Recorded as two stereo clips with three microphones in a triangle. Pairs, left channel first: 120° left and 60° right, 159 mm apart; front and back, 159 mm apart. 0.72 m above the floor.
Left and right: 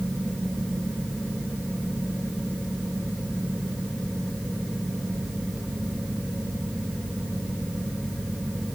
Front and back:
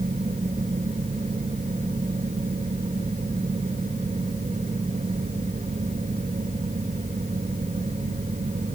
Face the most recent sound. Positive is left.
No sound to turn to.